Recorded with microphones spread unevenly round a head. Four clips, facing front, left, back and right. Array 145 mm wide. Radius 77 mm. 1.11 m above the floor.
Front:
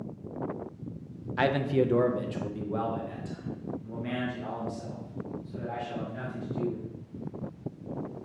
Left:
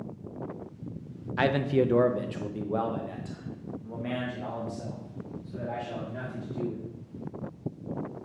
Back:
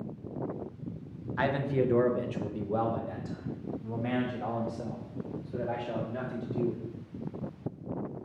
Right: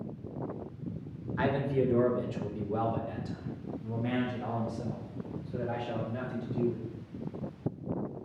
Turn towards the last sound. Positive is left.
turn(degrees=175)